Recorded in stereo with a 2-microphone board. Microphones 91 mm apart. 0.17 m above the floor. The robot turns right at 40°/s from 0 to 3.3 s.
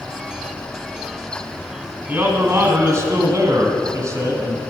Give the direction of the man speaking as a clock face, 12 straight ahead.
5 o'clock.